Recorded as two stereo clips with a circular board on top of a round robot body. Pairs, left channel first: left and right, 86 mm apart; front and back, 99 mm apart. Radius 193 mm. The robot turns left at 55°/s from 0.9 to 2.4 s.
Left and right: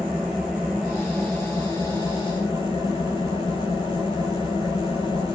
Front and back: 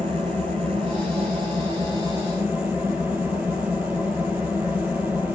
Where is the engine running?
170° right, 5 m; by 5.3 s 105° left, 5 m.